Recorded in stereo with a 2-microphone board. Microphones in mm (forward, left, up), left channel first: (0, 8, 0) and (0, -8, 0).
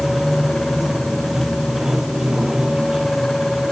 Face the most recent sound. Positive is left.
turn(degrees=-25)  # may be behind; listen again after turning